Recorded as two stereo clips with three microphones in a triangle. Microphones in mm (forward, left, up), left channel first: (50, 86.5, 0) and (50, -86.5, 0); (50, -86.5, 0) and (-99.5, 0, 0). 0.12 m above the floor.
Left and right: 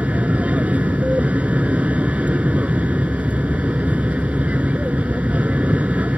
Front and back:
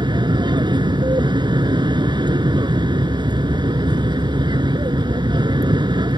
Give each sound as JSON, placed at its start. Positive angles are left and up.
{"t": 0.0, "sound": "an aircraft", "azimuth_deg": -165}